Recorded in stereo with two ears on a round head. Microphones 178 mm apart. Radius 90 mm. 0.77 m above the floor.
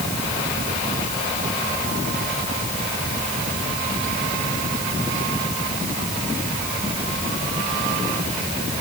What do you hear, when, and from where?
Only background noise.